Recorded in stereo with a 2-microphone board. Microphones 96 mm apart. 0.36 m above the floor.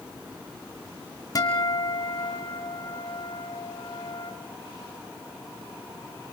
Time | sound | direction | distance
1.4 | a guitar | 40° left (ahead or behind) | 2 m